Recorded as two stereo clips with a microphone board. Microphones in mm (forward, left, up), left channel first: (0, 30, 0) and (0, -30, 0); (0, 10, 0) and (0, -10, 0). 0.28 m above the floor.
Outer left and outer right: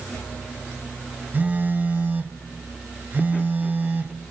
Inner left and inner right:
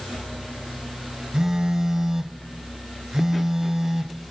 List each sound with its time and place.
1.3 s a phone buzzing: 35° right (ahead or behind), 1.0 m